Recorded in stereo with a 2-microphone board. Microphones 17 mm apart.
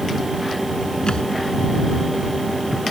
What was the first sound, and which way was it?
A thud, 65° left (ahead or behind).